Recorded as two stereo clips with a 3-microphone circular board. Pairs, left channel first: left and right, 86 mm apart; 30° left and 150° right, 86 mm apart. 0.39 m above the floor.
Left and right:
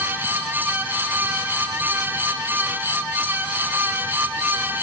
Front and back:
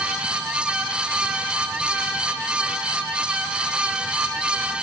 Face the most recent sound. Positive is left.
No sound to turn to.